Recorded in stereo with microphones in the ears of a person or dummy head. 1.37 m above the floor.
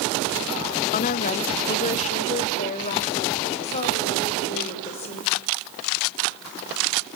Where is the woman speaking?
50° left (ahead or behind), 0.9 m; by 5.3 s 40° left (ahead or behind), 6.5 m.